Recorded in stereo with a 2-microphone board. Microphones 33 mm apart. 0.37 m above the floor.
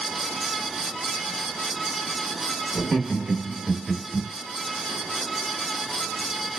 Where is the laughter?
20° right (ahead or behind), 0.8 m; by 4.3 s 5° right (ahead or behind), 1.3 m.